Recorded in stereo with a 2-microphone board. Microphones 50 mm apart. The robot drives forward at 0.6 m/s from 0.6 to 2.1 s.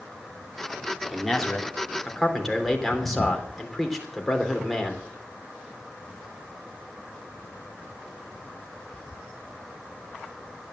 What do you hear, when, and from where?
1.1 s a man speaking: 5° left (ahead or behind), 3 m